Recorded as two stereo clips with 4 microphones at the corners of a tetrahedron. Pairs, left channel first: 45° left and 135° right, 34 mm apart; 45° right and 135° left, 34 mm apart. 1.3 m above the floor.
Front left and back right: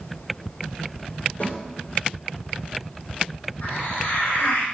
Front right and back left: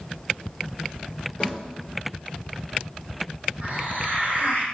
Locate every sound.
1.4 s a snare drum: 15° left, 4 m
3.6 s a hiss: 85° left, 4.5 m